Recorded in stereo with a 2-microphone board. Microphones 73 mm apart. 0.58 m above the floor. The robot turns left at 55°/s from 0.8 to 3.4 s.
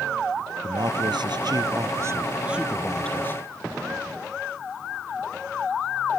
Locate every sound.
0.6 s a man speaking: 70° right; by 3.4 s 145° left